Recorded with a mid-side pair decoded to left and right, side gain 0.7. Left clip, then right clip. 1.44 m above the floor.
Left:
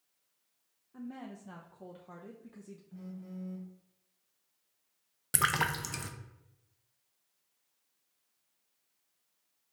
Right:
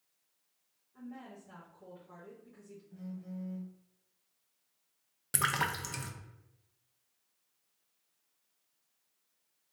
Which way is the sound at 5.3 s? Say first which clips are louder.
Left 2 dB; 10° left.